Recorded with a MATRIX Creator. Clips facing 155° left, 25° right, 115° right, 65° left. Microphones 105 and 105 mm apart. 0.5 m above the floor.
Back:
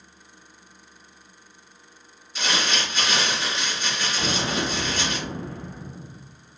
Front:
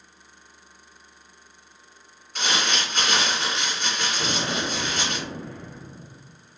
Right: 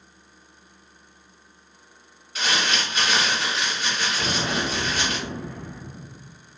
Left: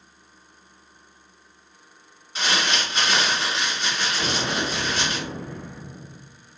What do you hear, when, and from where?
2.4 s crumpling: 10° left, 2 m
4.2 s an explosion: 155° left, 1.3 m